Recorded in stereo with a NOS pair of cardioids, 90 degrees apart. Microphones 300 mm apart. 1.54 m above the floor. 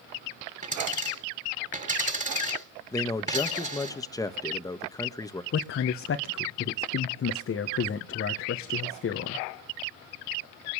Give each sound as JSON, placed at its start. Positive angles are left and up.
{"t": 0.6, "sound": "a dropped coin", "azimuth_deg": -25, "distance_m": 7.5}
{"t": 2.9, "sound": "a man speaking", "azimuth_deg": 10, "distance_m": 1.7}
{"t": 5.5, "sound": "a man speaking", "azimuth_deg": 45, "distance_m": 1.4}